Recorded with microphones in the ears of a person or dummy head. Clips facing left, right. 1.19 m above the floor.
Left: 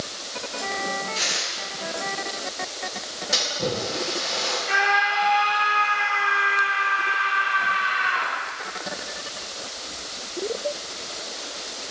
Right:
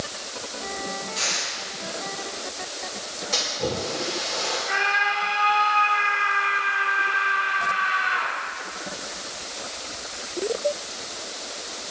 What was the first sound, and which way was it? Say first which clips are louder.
Tearing paper: left 1 dB; 15° left (ahead or behind).